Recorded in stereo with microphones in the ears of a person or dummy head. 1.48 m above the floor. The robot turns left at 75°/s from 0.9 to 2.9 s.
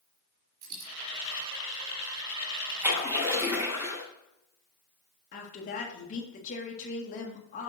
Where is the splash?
10° right (ahead or behind), 3.5 m; by 4.0 s 15° right (ahead or behind), 3.5 m.